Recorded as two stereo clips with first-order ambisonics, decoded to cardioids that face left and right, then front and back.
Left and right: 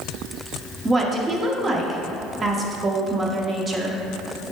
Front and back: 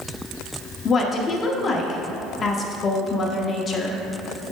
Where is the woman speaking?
40° right, 0.7 m.